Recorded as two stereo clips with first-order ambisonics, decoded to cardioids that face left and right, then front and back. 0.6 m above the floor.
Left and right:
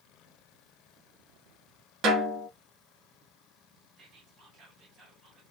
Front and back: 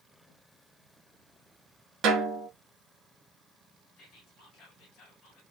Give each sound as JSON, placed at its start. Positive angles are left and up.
{"t": 2.0, "sound": "a snare drum", "azimuth_deg": -140, "distance_m": 1.1}
{"t": 4.0, "sound": "whispering", "azimuth_deg": -35, "distance_m": 1.7}